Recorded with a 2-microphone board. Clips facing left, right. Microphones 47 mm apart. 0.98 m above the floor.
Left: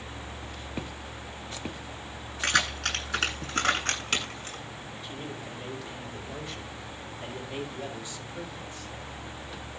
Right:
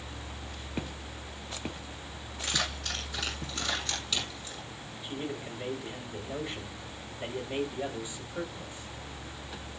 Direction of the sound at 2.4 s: 65° left (ahead or behind).